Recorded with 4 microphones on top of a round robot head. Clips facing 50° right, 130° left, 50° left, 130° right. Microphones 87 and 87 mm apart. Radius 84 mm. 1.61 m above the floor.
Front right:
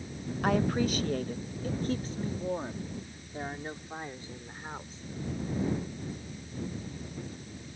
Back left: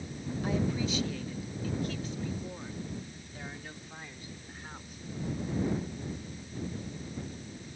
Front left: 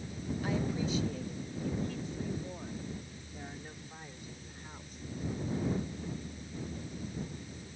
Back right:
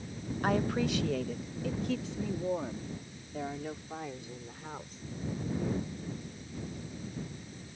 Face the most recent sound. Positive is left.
turn(degrees=-120)